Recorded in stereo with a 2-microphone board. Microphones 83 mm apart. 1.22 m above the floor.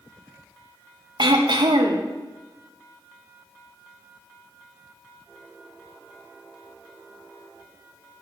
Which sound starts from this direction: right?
Throat clearing, at 1.2 s.